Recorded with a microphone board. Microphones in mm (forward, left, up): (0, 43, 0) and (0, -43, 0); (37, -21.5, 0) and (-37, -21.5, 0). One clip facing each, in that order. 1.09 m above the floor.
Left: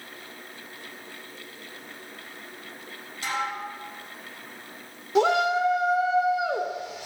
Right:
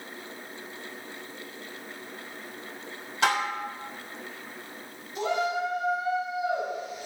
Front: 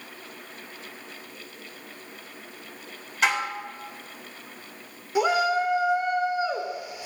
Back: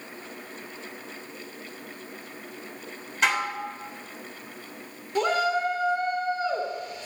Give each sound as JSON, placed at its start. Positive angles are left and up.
{"t": 3.2, "sound": "dishes clattering", "azimuth_deg": -90, "distance_m": 3.0}
{"t": 5.2, "sound": "a shout", "azimuth_deg": 80, "distance_m": 3.0}